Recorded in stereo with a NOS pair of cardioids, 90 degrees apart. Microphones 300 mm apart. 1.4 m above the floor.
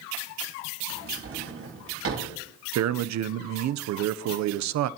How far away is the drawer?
About 8 m.